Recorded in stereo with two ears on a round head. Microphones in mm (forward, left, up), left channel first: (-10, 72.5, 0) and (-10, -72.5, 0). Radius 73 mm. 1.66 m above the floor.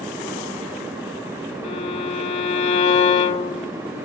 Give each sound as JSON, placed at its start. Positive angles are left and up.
{"t": 1.6, "sound": "a violin", "side_deg": 40, "distance_m": 1.5}